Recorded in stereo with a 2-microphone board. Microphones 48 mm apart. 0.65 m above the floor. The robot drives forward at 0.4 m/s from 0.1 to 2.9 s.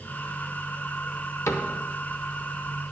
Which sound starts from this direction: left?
A cupboard door, at 1.5 s.